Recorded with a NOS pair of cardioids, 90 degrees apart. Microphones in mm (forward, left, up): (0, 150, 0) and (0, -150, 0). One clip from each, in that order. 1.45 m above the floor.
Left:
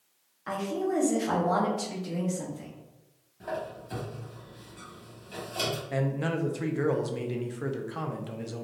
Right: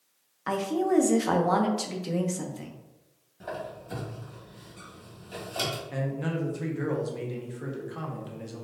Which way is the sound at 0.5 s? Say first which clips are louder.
Right 4 dB; 35° right.